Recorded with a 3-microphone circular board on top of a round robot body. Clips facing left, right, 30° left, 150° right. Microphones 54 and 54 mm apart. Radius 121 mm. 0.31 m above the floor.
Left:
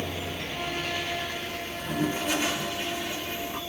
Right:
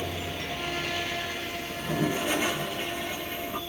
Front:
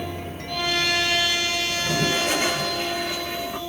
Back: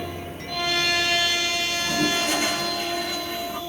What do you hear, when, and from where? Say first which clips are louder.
1.7 s a toilet flushing: right 1 dB, even; 15° right, 4.5 m